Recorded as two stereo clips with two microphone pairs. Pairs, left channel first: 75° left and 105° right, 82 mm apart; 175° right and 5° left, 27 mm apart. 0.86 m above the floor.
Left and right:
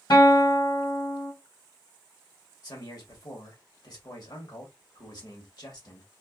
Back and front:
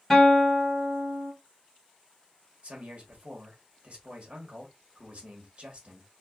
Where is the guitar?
105° left, 1.7 m.